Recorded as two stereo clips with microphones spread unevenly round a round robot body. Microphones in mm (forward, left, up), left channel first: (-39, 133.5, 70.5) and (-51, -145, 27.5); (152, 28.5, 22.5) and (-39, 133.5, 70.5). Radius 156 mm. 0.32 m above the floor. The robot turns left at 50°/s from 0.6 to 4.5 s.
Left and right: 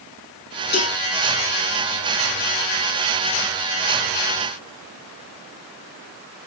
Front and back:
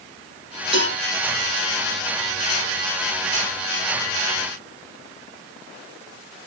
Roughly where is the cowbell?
Left.